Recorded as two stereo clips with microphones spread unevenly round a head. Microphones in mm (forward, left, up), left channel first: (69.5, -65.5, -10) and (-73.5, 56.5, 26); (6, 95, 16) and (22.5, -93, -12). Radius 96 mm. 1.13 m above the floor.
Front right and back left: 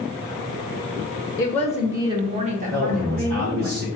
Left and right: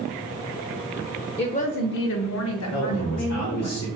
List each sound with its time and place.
1.4 s a woman speaking: 30° left, 0.5 m; by 3.7 s 100° left, 1.3 m
2.7 s a man speaking: 100° left, 1.5 m